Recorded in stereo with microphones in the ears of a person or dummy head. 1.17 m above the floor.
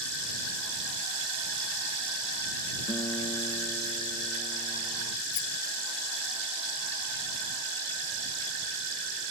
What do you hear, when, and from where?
2.9 s a guitar: 15° left (ahead or behind)
5.3 s a rattle: 80° left